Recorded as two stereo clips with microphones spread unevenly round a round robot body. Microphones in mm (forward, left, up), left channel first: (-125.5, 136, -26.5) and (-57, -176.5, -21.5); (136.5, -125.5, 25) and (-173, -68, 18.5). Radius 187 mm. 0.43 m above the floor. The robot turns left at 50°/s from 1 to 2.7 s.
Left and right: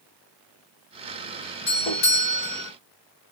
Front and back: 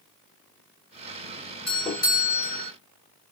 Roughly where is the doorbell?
Left.